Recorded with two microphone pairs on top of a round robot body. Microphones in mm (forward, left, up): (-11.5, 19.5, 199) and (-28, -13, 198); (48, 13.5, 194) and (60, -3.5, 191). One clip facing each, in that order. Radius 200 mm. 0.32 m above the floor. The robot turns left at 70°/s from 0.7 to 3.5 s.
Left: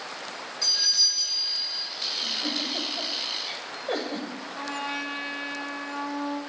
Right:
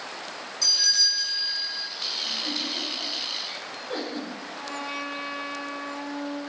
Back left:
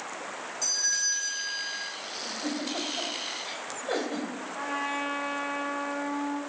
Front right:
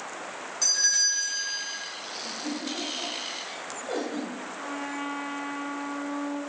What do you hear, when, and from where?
0.6 s a doorbell: 5° right, 2.5 m; by 1.9 s 85° right, 2.5 m
2.2 s a giggle: 160° left, 3 m; by 4.3 s 65° left, 3 m
4.5 s a trumpet: 125° left, 1.7 m